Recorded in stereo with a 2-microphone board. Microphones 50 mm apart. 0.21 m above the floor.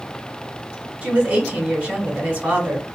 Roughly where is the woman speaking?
Right.